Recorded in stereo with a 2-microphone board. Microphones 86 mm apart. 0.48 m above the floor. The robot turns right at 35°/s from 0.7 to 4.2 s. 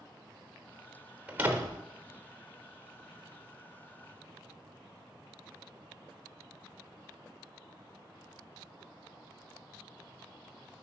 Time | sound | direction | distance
1.3 | a door slam | 15° right (ahead or behind) | 1.0 m